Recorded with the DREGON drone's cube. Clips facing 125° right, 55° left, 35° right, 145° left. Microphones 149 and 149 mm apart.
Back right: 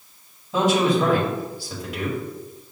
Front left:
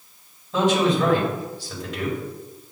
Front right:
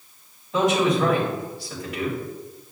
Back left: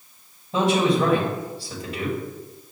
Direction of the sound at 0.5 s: 165° left.